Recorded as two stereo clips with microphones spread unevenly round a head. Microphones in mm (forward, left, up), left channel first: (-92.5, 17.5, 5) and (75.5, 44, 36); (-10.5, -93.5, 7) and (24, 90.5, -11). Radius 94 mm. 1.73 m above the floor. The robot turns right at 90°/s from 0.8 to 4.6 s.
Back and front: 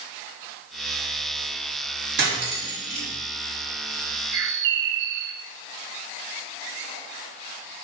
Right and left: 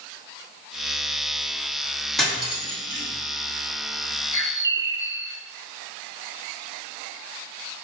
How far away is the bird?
About 0.8 m.